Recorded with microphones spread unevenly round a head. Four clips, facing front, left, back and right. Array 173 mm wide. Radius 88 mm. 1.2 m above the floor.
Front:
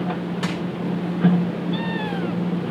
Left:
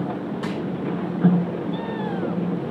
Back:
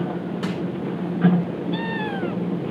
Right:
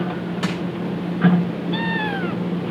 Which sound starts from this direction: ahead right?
Crushing, at 0.4 s.